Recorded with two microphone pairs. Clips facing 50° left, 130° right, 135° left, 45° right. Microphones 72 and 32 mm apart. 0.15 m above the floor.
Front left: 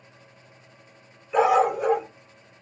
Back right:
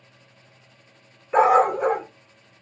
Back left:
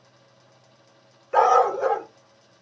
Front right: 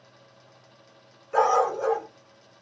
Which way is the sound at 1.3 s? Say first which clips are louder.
Back right 3 dB, back left 4 dB; 150° right.